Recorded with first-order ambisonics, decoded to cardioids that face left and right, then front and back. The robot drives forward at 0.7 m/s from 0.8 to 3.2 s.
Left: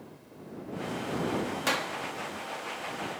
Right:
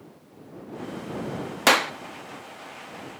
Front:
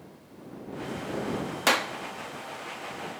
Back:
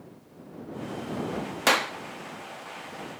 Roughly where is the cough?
No cough in this recording.